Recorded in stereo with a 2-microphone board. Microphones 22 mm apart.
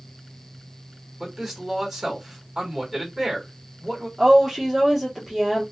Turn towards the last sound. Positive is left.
turn(degrees=0)  # may be behind; listen again after turning